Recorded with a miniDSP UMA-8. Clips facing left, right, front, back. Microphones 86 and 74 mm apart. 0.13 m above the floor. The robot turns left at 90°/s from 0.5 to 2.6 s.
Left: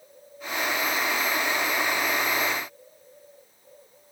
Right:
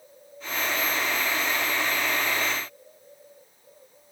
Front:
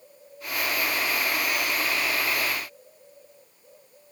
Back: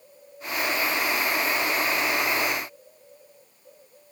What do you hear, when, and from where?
Only background noise.